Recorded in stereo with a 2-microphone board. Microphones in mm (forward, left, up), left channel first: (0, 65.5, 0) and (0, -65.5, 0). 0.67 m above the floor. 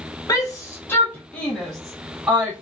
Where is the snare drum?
No snare drum in this recording.